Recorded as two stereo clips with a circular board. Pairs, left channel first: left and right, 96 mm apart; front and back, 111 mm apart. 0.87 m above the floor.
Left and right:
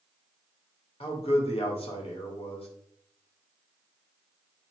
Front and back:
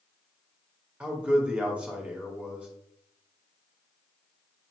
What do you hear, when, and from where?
1.0 s a man speaking: 100° left, 1.8 m